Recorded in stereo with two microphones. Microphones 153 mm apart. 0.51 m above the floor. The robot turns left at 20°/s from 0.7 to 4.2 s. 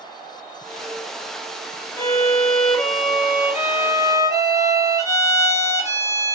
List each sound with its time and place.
2.0 s a violin: 25° left, 1.4 m; by 6.3 s 20° right, 1.4 m